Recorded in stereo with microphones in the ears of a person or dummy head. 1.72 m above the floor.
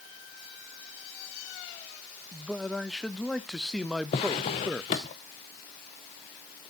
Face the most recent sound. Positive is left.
turn(degrees=25)  # may be behind; listen again after turning